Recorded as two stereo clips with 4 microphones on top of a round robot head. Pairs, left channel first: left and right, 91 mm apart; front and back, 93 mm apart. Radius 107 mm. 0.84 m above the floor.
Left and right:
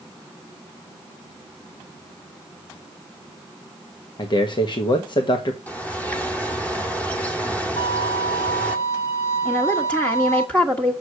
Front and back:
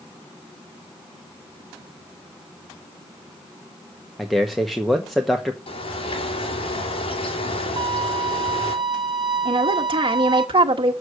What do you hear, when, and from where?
4.2 s a man speaking: 90° left, 1.6 m
5.7 s a bird: 15° left, 3 m
7.8 s a violin: 145° left, 1.9 m
9.4 s a woman speaking: 165° left, 1.5 m